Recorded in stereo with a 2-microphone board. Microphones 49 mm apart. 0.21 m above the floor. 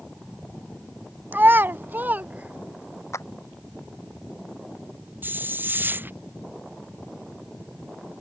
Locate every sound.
1.3 s a child speaking: 40° right (ahead or behind); by 3.0 s 25° right (ahead or behind)
3.1 s a clap: 75° left (ahead or behind)
5.2 s a hiss: 40° right (ahead or behind)